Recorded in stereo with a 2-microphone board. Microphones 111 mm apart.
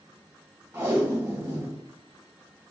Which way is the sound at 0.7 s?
20° right (ahead or behind).